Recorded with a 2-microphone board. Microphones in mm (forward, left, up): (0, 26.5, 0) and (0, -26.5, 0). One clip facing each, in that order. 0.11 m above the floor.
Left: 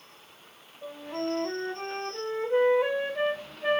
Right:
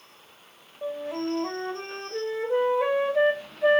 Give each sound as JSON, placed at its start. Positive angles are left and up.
{"t": 0.8, "sound": "a flute", "side_deg": -75, "distance_m": 4.0}